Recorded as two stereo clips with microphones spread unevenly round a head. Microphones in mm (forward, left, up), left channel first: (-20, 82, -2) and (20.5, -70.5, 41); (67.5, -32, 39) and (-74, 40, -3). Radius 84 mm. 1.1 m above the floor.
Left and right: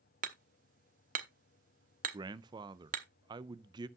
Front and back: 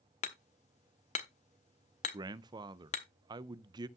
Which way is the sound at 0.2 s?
60° right.